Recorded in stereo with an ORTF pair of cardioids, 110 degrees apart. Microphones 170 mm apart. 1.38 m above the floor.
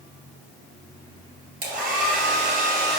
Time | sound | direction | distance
1.6 | a hair dryer | 65° right | 3.5 m